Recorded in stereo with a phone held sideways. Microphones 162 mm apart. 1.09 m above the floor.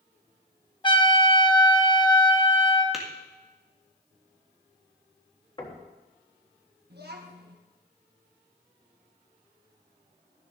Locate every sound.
0.8 s a trumpet: 30° left (ahead or behind), 1.1 m
2.9 s tapping: centre (ahead or behind), 1.8 m
5.6 s knocking: 30° left (ahead or behind), 1.5 m
6.9 s a child speaking: 80° right, 1.2 m